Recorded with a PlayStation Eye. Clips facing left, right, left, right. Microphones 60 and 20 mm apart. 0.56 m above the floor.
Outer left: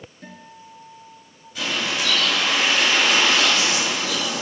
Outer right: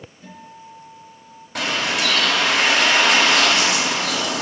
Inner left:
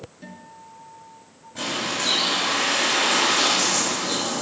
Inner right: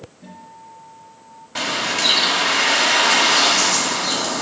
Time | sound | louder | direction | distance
0.2 | a guitar | outer right 3 dB, inner right 2 dB | 55° left (ahead or behind) | 4.5 m
1.6 | a bird | outer right 3 dB, inner right 5 dB | 65° right (ahead or behind) | 3 m